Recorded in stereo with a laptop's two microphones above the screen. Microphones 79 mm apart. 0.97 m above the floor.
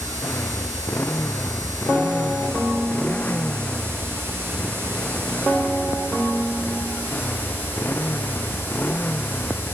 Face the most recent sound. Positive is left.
turn(degrees=25)  # may be behind; listen again after turning